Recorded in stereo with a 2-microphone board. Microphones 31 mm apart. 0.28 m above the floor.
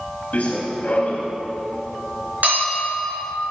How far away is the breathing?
No breathing in this recording.